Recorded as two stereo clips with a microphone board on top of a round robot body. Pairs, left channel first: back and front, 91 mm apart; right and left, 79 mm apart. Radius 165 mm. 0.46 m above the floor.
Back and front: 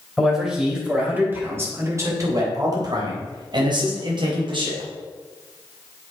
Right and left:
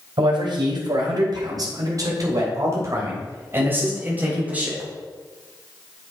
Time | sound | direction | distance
0.2 | a man speaking | 85° left | 3.5 m